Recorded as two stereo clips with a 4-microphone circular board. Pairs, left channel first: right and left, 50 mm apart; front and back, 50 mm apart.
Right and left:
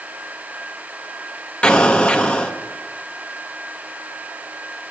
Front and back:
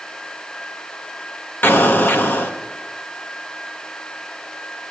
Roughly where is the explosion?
Ahead right.